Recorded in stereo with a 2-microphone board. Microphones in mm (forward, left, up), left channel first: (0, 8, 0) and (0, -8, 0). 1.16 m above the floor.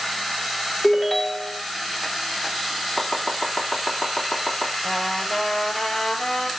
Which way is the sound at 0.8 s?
35° left (ahead or behind).